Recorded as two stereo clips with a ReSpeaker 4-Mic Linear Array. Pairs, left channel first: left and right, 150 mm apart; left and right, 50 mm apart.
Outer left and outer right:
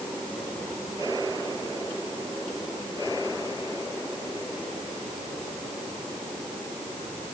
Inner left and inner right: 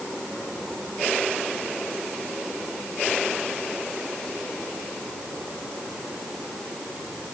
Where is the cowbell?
No cowbell in this recording.